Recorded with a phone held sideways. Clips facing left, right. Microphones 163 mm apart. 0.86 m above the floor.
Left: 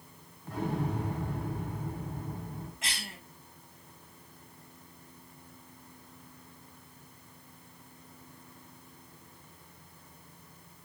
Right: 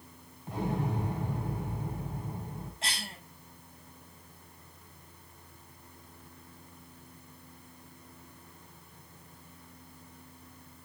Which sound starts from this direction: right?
A cough, at 2.8 s.